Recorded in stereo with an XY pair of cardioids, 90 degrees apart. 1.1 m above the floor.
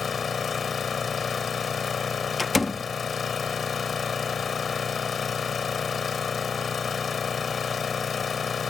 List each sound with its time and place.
0.0 s an engine running: 45° left
2.4 s a door slam: 20° left